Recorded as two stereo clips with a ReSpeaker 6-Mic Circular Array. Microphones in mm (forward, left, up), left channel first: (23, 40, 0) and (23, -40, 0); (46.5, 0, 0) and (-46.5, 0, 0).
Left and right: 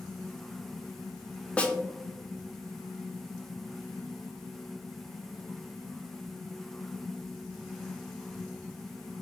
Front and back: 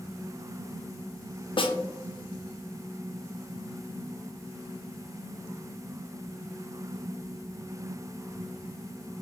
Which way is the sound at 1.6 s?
15° left.